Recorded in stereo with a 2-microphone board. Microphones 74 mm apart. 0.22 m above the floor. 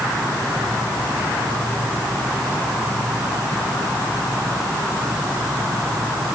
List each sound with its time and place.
Only background noise.